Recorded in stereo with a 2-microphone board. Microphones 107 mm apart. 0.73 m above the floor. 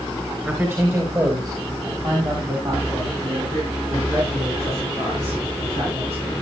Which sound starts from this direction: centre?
A man speaking, at 0.5 s.